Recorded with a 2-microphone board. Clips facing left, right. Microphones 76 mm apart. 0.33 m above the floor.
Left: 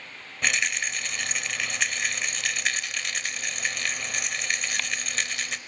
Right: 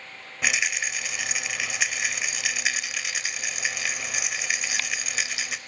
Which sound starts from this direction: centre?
A rattle, at 0.4 s.